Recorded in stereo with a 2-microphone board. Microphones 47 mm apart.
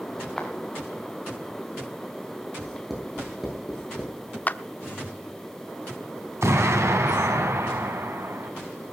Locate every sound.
0.4 s footsteps: 10° left (ahead or behind), 4 m
2.6 s writing: 5° right (ahead or behind), 9.5 m
4.5 s a clap: 35° left (ahead or behind), 0.8 m
6.4 s an explosion: 75° right (ahead or behind), 3 m